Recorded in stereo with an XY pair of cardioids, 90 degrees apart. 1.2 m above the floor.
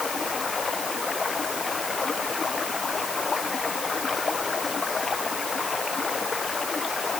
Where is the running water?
35° left.